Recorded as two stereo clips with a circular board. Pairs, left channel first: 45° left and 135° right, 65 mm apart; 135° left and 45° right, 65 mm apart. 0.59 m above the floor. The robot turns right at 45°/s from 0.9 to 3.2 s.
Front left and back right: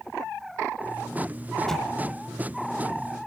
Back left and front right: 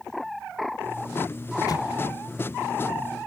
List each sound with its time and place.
1.7 s an explosion: 125° left, 1.0 m; by 1.9 s 135° left, 1.0 m